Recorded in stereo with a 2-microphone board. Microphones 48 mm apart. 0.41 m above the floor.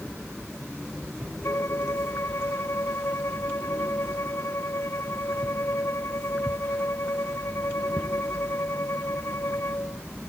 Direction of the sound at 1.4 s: 65° left (ahead or behind).